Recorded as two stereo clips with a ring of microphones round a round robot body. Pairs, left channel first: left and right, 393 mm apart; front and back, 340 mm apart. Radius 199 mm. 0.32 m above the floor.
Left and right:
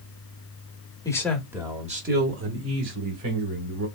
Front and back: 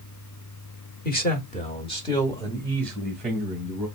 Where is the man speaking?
20° left, 1.0 m; by 3.9 s 95° right, 1.5 m.